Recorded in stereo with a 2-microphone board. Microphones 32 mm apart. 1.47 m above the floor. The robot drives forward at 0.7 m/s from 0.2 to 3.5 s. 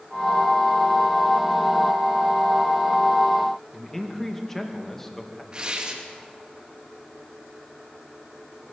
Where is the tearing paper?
25° right (ahead or behind), 2.5 m.